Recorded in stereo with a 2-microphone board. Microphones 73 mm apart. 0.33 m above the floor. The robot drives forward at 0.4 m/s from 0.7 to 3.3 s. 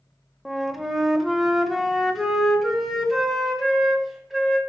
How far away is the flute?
About 0.7 m.